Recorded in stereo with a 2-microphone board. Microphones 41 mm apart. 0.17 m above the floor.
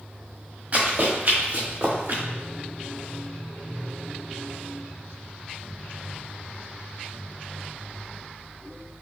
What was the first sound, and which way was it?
Running footsteps, 40° right (ahead or behind).